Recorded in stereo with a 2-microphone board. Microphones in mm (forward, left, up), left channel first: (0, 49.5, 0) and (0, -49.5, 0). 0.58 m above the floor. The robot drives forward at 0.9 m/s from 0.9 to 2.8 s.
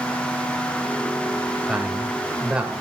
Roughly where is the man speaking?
Centre.